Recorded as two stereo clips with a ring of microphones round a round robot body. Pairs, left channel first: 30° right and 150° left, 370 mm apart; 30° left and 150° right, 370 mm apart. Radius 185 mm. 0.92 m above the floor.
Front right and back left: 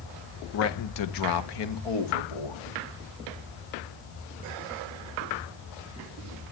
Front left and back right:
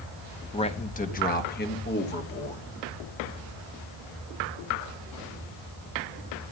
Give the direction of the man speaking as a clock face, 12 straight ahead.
1 o'clock.